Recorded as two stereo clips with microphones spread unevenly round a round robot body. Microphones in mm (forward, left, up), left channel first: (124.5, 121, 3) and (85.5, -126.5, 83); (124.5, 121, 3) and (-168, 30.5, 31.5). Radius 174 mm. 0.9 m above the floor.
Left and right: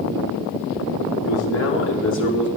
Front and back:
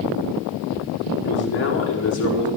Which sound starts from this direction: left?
A man speaking, at 1.2 s.